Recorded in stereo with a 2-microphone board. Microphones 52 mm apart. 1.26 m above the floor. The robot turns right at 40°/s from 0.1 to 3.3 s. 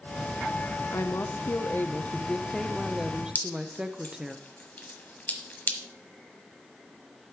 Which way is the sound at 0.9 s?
100° left.